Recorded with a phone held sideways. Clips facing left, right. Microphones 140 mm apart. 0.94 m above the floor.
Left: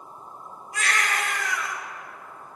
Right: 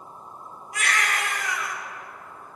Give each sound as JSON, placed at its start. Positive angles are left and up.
{"t": 0.7, "sound": "a baby crying", "side_deg": -75, "distance_m": 4.5}